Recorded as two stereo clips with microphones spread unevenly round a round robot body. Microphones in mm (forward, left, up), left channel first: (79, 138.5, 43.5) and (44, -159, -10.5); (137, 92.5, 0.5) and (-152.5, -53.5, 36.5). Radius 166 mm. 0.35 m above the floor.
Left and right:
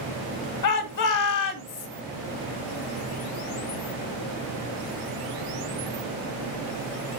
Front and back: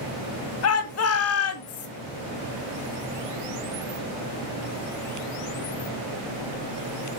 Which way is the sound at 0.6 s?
60° left.